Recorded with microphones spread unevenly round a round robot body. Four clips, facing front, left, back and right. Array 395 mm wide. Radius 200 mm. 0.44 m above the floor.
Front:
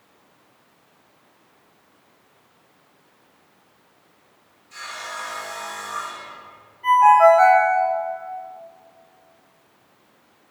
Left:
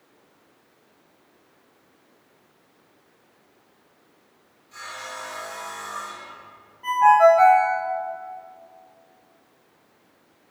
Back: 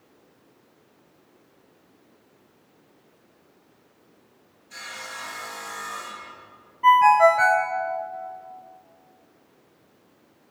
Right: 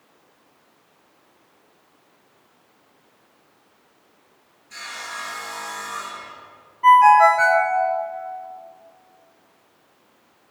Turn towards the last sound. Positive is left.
turn(degrees=180)